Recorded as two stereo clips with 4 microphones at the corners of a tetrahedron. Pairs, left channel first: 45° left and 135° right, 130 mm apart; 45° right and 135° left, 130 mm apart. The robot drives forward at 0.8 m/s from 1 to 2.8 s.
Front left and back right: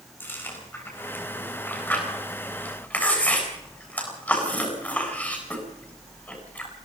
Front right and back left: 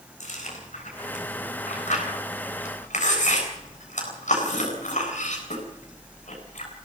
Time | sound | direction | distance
0.2 | chewing | 25° right | 9.5 m